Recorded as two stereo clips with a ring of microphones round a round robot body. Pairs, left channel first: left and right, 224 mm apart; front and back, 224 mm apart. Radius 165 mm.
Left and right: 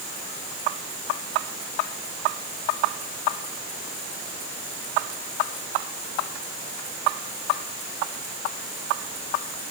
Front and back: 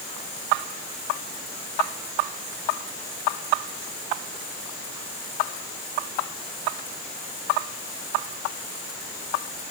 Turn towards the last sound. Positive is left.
No sound to turn to.